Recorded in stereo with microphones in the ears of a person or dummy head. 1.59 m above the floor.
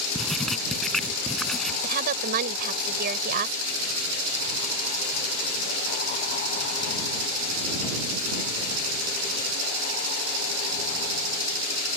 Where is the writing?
5° left (ahead or behind).